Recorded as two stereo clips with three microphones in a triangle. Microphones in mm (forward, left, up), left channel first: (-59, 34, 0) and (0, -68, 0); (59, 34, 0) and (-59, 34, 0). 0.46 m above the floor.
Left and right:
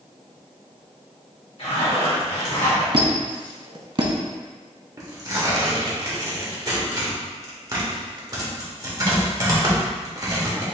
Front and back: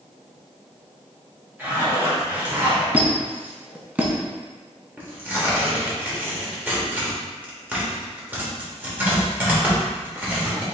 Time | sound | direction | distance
1.6 | a zipper | 110° left | 1.8 m
2.9 | a squeak | 105° right | 0.6 m
5.0 | tearing paper | 110° right | 1.0 m